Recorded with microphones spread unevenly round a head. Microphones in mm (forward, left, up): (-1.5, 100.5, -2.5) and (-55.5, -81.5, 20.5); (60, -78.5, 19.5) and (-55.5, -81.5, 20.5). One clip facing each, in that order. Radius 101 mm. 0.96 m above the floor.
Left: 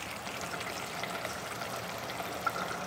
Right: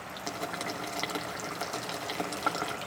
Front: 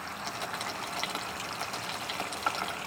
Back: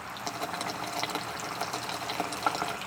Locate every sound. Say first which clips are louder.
0.3 s boiling: right 6 dB, back 4 dB; 130° right, 2.5 m